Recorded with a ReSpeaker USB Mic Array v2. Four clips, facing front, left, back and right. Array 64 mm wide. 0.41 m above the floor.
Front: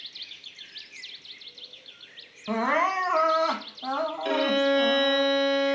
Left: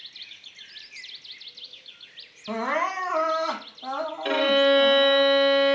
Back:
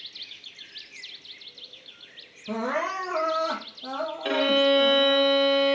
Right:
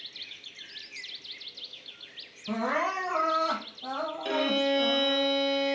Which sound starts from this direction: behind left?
A violin, at 4.2 s.